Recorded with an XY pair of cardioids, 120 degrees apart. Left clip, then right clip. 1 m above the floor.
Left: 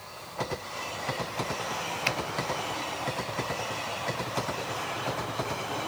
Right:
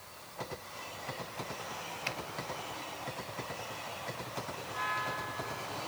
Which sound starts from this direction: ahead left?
A finger snap, at 2.1 s.